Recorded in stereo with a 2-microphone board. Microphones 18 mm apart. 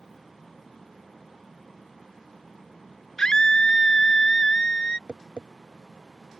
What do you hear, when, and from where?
3.2 s a scream: 35° left (ahead or behind); by 5.0 s 60° left (ahead or behind)
5.1 s tapping: 75° right (ahead or behind)